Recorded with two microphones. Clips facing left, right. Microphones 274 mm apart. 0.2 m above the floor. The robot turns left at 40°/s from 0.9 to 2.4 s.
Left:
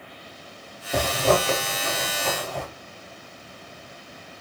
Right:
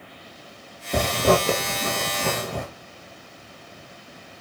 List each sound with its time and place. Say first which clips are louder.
0.9 s a zipper: right 2 dB; 20° right (ahead or behind), 2.5 m; by 2.7 s 75° right (ahead or behind), 2.5 m